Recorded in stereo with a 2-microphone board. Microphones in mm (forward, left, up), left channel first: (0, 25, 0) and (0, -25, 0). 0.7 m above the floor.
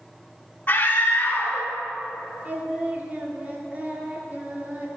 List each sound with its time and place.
0.7 s a scream: 30° left (ahead or behind), 2 m
2.5 s singing: 35° right (ahead or behind), 1.4 m